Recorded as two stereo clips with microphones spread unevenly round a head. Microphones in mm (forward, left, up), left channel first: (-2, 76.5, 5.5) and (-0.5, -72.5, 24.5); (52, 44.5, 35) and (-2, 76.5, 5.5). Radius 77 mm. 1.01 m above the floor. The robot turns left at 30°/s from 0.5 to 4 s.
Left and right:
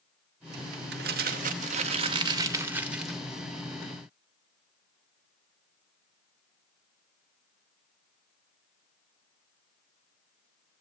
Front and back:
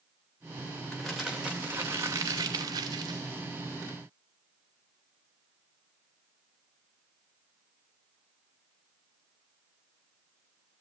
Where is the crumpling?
110° right, 2 m; by 3.2 s straight behind, 2 m.